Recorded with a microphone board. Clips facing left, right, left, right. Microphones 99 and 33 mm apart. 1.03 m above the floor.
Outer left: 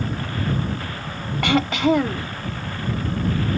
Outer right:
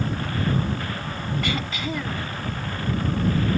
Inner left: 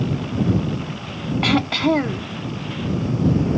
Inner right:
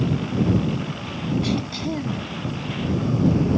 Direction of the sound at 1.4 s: 65° left (ahead or behind).